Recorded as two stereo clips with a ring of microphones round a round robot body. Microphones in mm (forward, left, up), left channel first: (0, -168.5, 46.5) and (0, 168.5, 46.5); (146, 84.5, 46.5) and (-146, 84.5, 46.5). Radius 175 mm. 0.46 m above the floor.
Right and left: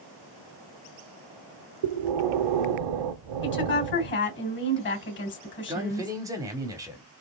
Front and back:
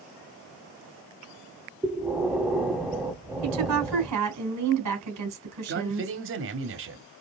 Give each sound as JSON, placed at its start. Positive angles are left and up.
{"t": 1.8, "sound": "breathing", "azimuth_deg": 90, "distance_m": 0.7}
{"t": 3.4, "sound": "a woman speaking", "azimuth_deg": -145, "distance_m": 3.0}
{"t": 5.7, "sound": "a man speaking", "azimuth_deg": 165, "distance_m": 1.1}